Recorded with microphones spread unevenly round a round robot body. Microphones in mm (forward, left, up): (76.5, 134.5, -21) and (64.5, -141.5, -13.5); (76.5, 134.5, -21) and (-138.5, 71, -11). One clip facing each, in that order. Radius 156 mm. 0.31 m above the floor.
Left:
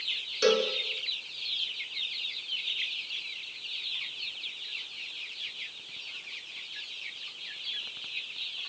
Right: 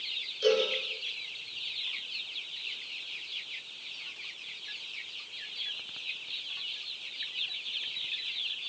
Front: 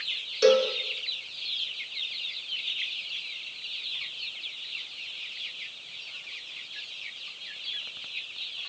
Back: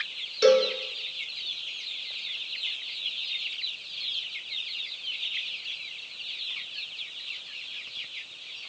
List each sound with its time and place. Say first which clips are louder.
0.4 s a cowbell: left 1 dB, back 1 dB; 115° left, 4 m